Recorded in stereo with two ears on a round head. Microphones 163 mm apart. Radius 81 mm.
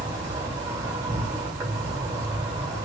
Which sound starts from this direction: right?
An insect, at 0.0 s.